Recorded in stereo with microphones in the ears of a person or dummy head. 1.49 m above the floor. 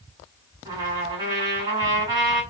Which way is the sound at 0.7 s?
25° right (ahead or behind).